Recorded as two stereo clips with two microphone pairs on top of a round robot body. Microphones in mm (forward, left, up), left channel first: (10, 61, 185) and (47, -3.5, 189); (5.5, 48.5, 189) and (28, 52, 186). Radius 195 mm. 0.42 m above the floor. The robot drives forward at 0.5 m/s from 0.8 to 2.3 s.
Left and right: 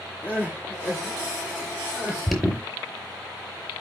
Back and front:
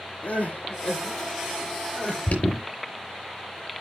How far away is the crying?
About 7 m.